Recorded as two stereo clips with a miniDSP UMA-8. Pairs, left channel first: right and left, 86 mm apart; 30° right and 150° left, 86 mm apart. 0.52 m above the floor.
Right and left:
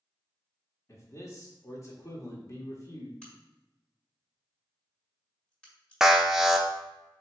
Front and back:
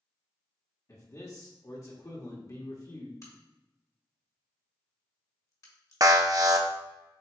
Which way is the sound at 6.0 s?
175° left.